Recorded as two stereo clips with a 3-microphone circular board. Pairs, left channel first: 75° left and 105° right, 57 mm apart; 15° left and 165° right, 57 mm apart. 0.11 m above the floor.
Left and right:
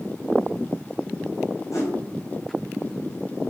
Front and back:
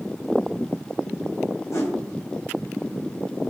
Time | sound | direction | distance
1.7 | a whoosh | 45° left | 3 m